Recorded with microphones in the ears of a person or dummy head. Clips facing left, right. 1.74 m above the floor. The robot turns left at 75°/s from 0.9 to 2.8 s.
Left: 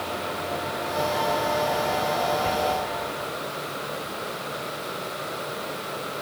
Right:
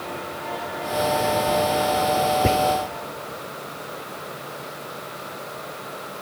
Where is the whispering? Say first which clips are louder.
Right 6 dB; 60° right (ahead or behind), 0.6 m; by 2.6 s 50° right (ahead or behind), 0.6 m.